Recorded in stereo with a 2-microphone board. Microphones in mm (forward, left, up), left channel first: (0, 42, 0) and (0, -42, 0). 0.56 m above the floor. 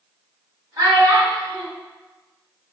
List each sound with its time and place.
0.8 s a child speaking: 40° right (ahead or behind), 1.4 m